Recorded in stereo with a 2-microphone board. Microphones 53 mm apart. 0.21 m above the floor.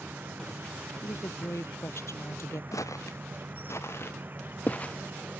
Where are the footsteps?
75° left (ahead or behind); by 4.9 s 20° left (ahead or behind).